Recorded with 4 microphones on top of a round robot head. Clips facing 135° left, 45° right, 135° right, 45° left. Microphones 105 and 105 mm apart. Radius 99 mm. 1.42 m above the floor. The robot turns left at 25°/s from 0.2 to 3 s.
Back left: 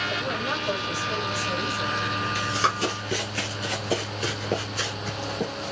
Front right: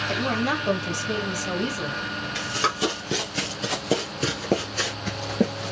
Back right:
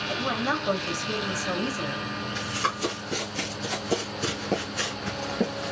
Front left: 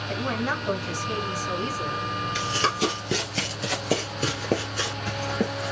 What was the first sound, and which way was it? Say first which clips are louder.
A woman speaking: front right 4 dB, even; 50° right.